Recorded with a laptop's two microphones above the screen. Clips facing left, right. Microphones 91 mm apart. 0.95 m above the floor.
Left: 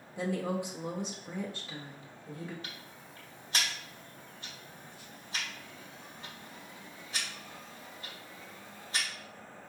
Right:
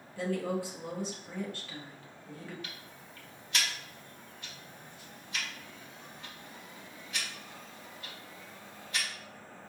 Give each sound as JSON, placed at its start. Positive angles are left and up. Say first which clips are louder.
{"t": 0.2, "sound": "a woman speaking", "louder": "even", "side_deg": 15, "distance_m": 0.7}
{"t": 2.6, "sound": "ticking", "louder": "even", "side_deg": 30, "distance_m": 0.9}